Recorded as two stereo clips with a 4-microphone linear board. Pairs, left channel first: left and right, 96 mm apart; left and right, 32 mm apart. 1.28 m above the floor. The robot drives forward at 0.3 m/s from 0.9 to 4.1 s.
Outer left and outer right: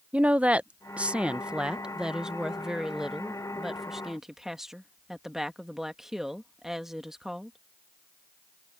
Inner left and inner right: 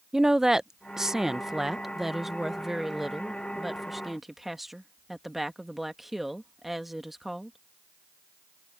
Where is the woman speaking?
15° right (ahead or behind); by 7.6 s 5° right (ahead or behind).